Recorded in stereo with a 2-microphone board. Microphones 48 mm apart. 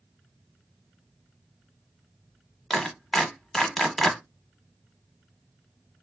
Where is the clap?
5° left (ahead or behind), 0.9 m.